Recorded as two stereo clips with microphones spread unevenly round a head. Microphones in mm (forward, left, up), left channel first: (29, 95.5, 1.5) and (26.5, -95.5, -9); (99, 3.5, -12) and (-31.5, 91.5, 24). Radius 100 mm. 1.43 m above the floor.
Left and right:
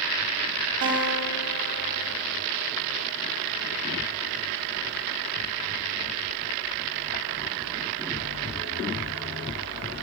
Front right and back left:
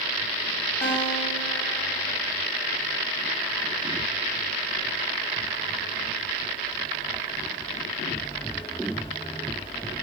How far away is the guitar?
About 2.0 m.